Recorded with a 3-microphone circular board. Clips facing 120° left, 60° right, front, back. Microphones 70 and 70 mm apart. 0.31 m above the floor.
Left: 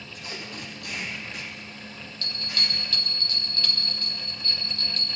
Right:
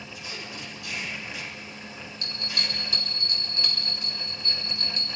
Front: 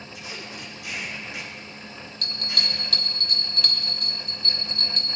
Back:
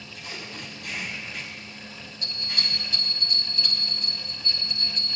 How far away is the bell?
About 4.5 m.